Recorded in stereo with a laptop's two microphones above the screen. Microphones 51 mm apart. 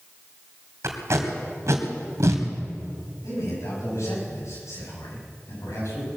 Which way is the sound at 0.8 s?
70° right (ahead or behind).